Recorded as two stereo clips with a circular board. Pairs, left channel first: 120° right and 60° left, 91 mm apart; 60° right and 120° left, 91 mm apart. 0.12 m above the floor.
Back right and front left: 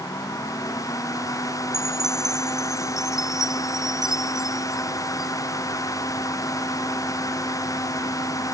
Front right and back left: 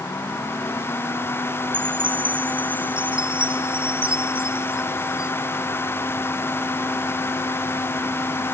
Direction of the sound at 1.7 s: 145° left.